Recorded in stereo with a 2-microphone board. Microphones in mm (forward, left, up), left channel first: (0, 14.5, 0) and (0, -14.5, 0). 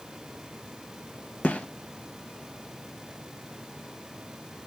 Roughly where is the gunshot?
Left.